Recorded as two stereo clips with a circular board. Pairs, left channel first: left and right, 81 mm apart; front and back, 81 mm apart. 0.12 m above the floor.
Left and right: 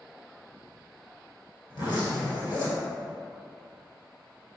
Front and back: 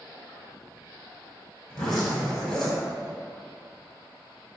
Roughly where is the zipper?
Left.